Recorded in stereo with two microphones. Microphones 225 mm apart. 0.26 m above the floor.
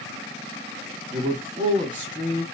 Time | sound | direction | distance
1.1 | a man speaking | 35° right (ahead or behind) | 1.3 m